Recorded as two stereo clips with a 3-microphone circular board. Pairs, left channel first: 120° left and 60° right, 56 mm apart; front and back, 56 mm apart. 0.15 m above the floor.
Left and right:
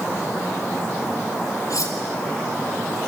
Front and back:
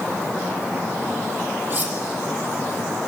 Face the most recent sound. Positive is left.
turn(degrees=120)